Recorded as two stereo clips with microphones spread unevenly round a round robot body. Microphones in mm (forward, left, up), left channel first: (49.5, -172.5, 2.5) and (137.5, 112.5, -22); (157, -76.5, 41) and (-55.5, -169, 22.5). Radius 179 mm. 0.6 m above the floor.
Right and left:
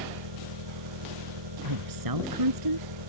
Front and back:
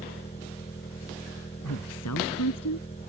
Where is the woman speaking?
65° left.